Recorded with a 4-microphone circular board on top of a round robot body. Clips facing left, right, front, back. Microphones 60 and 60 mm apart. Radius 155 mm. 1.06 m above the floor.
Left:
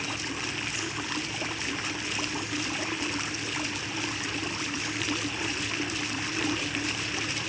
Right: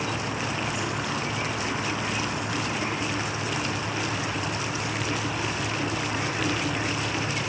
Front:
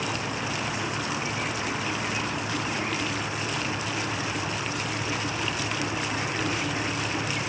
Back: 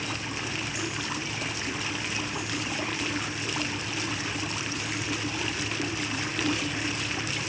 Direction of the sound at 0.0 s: 50° right.